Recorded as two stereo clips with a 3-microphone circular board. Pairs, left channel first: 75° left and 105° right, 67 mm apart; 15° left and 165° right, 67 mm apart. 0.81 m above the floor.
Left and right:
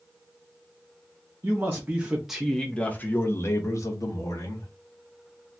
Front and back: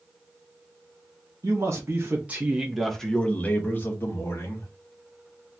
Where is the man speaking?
145° right, 0.8 m; by 4.7 s 60° left, 1.2 m.